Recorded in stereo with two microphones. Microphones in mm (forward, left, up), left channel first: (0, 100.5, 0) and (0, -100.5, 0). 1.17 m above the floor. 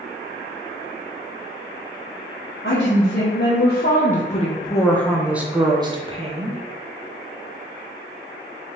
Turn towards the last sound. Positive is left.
turn(degrees=-35)  # may be behind; listen again after turning